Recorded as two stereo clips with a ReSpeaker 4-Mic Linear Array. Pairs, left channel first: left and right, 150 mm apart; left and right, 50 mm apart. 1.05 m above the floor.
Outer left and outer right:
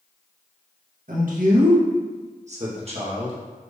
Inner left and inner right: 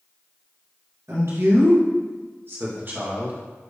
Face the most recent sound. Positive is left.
turn(degrees=-40)  # may be behind; listen again after turning